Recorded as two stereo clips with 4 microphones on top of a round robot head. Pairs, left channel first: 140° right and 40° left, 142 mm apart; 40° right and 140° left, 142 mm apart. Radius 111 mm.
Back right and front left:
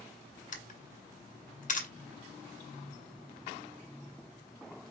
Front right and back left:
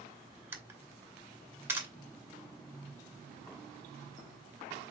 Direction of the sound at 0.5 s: 145° right.